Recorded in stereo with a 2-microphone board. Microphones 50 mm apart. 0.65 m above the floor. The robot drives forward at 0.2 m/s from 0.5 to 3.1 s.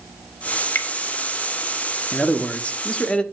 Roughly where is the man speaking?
Left.